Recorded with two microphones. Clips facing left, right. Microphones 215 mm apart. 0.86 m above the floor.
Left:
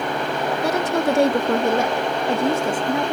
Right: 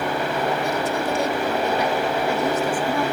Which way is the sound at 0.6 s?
70° left (ahead or behind).